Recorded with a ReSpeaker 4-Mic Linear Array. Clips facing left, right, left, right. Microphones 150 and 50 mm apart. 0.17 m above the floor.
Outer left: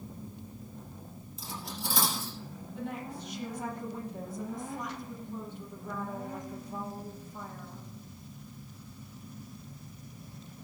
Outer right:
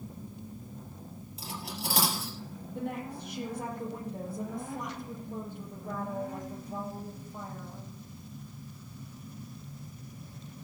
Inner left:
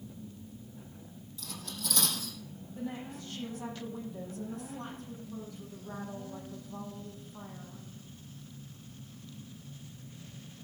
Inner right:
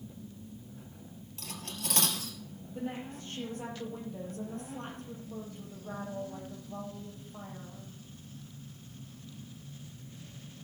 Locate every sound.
1.4 s cutlery clinking: 70° right (ahead or behind), 2.5 m
2.7 s a woman speaking: 60° right (ahead or behind), 5.5 m